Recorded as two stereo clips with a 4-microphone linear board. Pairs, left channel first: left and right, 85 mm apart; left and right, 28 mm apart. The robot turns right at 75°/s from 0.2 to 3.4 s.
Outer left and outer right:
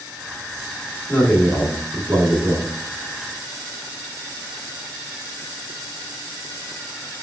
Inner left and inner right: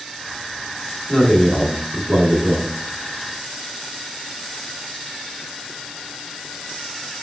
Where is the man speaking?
145° left, 1.3 m; by 2.8 s 90° right, 1.3 m.